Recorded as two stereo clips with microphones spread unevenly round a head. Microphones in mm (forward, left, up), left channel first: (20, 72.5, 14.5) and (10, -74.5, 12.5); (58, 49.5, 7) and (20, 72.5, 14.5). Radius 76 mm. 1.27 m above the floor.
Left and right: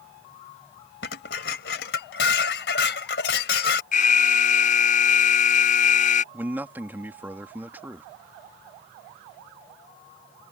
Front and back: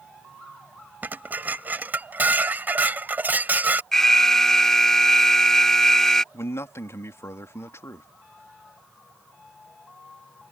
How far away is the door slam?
I don't hear a door slam.